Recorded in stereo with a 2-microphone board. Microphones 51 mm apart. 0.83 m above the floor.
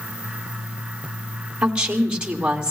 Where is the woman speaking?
20° right (ahead or behind), 1.9 m.